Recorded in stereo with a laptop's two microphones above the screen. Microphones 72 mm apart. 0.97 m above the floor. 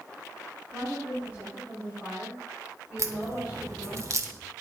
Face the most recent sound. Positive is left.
turn(degrees=-45)  # may be behind; listen again after turning